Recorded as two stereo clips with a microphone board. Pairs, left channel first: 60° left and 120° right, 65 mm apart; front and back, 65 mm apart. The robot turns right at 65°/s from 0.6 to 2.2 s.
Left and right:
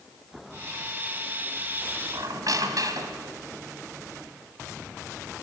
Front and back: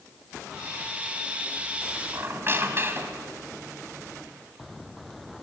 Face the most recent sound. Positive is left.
turn(degrees=-130)